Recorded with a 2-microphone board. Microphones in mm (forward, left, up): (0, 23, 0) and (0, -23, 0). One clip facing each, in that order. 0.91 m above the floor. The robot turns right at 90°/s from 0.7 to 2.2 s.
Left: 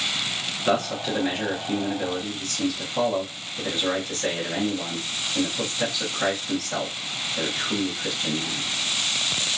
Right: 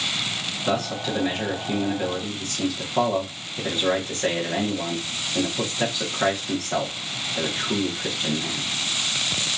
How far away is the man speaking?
About 1.0 m.